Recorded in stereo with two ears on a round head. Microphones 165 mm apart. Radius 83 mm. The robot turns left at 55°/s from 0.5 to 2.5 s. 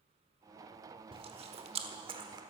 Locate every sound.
1.1 s chewing: 30° right (ahead or behind), 1.1 m; by 2.4 s 20° right (ahead or behind), 1.1 m